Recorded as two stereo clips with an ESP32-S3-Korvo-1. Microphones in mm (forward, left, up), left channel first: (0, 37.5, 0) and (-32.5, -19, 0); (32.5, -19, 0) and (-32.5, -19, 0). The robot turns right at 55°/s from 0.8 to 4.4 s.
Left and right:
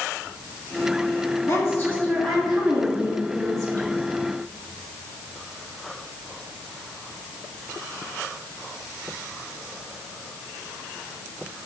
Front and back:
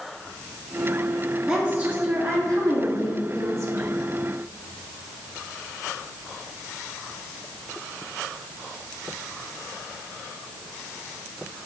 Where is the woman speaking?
100° left, 2.5 m; by 3.9 s 130° right, 2.5 m.